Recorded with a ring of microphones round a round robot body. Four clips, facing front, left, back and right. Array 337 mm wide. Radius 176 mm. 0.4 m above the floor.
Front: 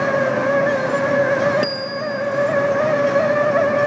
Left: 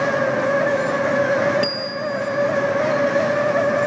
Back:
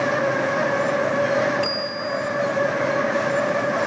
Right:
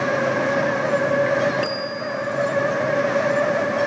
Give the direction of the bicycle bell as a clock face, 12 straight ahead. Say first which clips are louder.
Left 2 dB, front 3 dB; 12 o'clock.